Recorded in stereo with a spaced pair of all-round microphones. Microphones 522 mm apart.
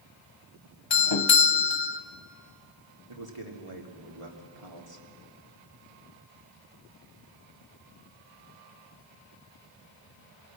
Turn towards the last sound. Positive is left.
turn(degrees=-70)  # may be behind; listen again after turning